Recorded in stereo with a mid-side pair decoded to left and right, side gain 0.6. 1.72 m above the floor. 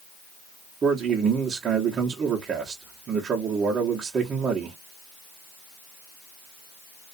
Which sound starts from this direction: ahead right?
A man speaking, at 0.8 s.